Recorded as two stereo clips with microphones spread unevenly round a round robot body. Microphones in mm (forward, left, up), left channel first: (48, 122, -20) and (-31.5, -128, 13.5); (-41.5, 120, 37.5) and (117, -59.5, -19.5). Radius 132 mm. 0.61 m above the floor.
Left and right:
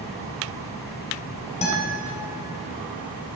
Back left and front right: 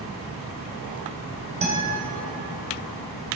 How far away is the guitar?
About 3.5 m.